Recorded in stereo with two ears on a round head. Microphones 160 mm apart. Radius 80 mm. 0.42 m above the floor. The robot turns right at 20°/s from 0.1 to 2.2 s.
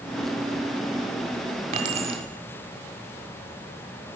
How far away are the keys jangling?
About 1.7 m.